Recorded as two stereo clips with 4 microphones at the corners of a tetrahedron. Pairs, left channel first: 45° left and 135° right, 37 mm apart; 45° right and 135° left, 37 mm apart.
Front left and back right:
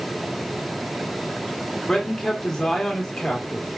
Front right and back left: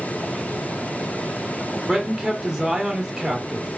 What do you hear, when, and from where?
1.9 s a man speaking: 75° left, 1.1 m